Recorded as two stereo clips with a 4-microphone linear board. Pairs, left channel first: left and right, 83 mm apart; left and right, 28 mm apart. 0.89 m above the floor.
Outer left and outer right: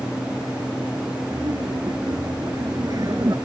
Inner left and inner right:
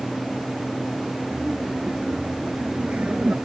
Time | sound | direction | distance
1.3 | laughter | 45° right (ahead or behind) | ?